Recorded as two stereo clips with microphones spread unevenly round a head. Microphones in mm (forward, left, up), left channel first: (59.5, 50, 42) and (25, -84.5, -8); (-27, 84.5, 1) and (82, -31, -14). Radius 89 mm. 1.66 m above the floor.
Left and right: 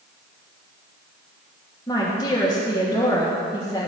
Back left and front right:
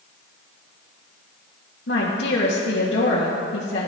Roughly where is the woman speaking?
Behind left.